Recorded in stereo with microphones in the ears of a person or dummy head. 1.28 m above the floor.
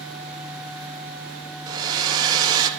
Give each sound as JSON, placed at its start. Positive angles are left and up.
{"t": 1.7, "sound": "a hair dryer", "side_deg": -20, "distance_m": 1.7}